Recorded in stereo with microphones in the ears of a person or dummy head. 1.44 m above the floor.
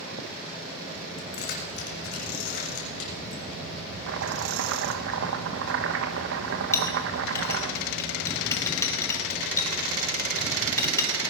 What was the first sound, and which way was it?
Keys jangling, 60° left (ahead or behind).